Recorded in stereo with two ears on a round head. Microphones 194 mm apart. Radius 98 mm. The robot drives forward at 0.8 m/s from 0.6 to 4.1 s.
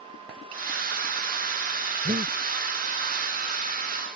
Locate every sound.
2.0 s breathing: 25° right (ahead or behind)